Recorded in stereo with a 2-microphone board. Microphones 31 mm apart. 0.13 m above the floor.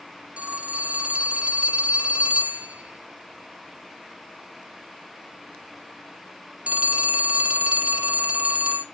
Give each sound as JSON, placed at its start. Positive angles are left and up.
{"t": 0.4, "sound": "a phone ringing", "side_deg": -40, "distance_m": 1.3}